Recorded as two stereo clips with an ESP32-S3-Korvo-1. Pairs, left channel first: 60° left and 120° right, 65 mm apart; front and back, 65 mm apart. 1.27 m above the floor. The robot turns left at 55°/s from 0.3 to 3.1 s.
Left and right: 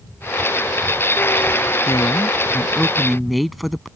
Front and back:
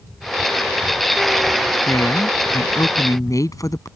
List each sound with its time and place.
1.9 s a woman speaking: 40° left; by 3.9 s 30° right